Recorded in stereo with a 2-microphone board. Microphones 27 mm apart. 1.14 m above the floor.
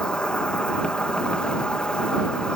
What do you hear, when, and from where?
0.0 s an insect: 45° left (ahead or behind)